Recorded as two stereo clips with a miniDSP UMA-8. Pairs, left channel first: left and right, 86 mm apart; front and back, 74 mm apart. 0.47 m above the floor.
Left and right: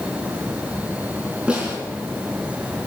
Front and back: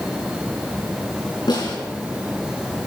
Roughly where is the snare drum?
Ahead.